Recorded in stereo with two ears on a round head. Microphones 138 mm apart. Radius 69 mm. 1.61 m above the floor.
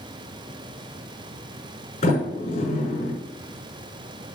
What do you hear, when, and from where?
2.0 s a sliding door: 45° left (ahead or behind), 6.5 m